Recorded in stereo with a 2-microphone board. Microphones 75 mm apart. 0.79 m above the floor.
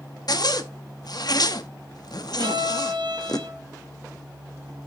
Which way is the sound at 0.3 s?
60° left (ahead or behind).